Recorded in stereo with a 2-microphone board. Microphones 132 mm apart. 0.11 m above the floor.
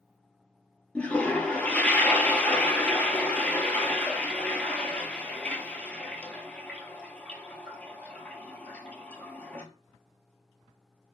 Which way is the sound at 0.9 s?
10° left (ahead or behind).